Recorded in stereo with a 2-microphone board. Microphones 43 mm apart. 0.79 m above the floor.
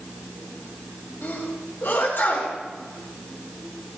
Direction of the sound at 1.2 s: 65° left (ahead or behind).